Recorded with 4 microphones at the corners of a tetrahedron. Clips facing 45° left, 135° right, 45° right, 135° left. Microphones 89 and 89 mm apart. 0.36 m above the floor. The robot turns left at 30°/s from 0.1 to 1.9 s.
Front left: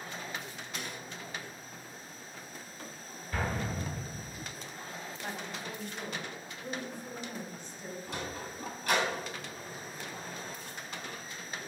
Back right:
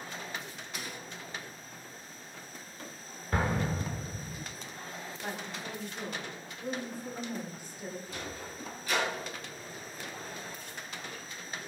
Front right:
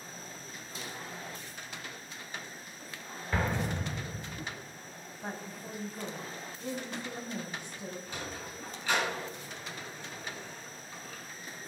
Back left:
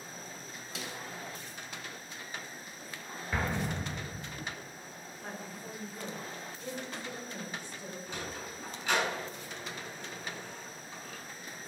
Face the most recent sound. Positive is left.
turn(degrees=65)